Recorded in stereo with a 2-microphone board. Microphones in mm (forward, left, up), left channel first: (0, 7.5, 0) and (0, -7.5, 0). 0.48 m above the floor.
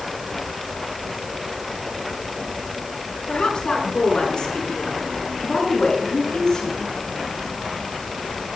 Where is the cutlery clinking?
I don't hear cutlery clinking.